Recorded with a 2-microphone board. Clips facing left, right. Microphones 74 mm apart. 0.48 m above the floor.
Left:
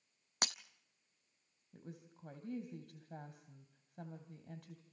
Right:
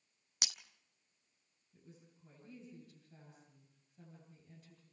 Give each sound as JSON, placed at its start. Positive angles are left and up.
{"t": 0.4, "sound": "breaking glass", "side_deg": 45, "distance_m": 0.8}
{"t": 1.7, "sound": "a woman speaking", "side_deg": 70, "distance_m": 3.0}